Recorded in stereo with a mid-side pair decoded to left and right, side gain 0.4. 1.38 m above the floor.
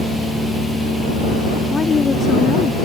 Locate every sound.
1.7 s a woman speaking: 40° left